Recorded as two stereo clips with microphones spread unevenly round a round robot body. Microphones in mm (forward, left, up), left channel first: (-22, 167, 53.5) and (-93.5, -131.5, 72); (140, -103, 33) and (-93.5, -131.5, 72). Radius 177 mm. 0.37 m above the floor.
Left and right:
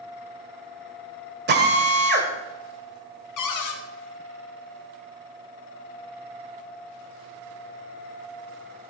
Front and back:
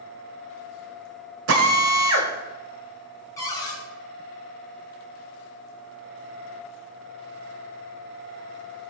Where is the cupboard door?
80° left, 1.7 m.